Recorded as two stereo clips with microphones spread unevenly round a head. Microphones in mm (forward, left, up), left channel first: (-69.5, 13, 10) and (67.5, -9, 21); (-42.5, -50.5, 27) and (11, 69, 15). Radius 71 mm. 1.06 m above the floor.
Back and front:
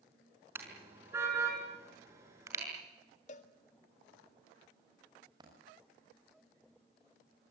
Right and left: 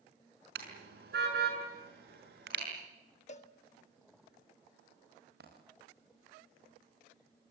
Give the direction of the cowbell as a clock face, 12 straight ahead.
5 o'clock.